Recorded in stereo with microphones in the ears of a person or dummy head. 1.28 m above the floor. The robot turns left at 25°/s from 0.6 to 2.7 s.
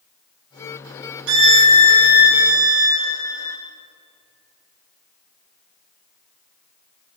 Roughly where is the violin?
Right.